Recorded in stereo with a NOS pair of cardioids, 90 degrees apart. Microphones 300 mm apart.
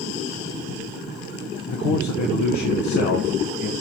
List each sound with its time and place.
1.6 s a man speaking: 70° left, 1.1 m